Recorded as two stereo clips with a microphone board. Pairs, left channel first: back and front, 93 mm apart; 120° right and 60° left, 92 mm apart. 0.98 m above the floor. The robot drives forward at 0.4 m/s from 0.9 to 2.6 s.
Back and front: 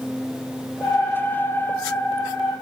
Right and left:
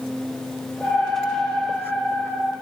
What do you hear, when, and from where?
Only background noise.